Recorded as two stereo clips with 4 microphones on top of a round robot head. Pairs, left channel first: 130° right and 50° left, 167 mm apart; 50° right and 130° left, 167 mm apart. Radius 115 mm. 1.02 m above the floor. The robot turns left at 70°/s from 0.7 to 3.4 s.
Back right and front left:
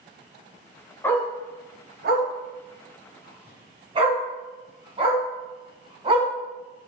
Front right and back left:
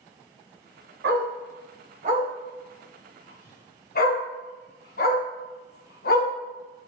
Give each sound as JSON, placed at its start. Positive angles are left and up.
{"t": 1.0, "sound": "a dog barking", "azimuth_deg": 150, "distance_m": 2.5}